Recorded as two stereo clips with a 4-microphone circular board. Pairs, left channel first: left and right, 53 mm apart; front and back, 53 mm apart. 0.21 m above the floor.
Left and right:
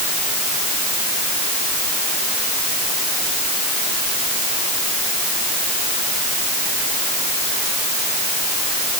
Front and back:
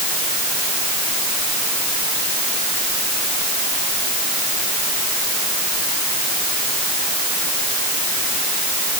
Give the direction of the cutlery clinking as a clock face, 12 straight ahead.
I don't hear cutlery clinking.